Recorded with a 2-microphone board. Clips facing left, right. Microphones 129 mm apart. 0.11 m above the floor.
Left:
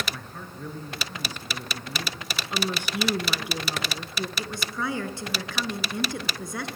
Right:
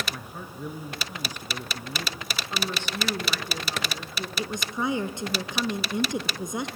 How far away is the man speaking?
About 1.6 m.